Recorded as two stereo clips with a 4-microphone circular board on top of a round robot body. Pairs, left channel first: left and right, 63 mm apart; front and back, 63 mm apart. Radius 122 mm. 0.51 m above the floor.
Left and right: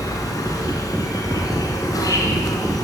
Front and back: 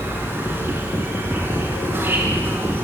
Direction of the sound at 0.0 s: 120° left.